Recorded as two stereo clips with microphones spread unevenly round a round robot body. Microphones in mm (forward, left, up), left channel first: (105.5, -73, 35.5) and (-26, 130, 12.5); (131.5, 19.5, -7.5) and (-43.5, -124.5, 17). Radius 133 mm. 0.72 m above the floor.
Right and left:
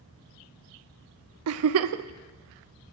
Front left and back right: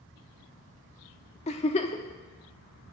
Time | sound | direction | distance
1.5 | a giggle | 105° left | 0.6 m